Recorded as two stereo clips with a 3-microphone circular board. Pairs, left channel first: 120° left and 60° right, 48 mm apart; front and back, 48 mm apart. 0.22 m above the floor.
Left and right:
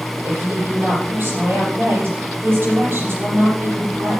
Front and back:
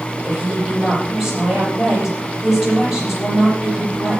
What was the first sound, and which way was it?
A woman speaking, 100° right.